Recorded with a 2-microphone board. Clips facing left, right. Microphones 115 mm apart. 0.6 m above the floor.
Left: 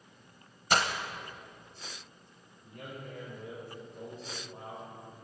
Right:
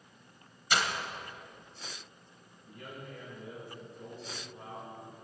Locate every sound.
0.7 s breaking glass: 45° left (ahead or behind), 0.9 m
2.6 s a man speaking: 65° left (ahead or behind), 3 m